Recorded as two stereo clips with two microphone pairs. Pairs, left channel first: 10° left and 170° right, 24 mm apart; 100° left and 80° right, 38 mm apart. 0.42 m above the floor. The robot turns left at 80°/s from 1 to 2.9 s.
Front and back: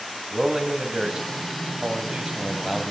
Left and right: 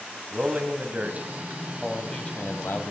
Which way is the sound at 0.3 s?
115° right.